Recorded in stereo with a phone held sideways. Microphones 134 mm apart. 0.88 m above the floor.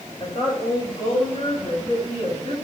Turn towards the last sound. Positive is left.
turn(degrees=55)  # may be behind; listen again after turning